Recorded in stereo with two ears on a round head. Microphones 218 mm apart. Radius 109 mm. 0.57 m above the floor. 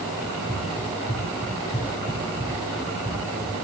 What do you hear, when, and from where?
0.2 s running footsteps: 10° left (ahead or behind), 9.5 m; by 3.5 s 15° left (ahead or behind), 13 m